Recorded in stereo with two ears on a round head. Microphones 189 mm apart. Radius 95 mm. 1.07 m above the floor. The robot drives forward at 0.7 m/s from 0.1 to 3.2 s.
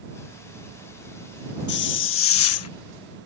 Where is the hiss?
50° left (ahead or behind); by 2.7 s 70° left (ahead or behind).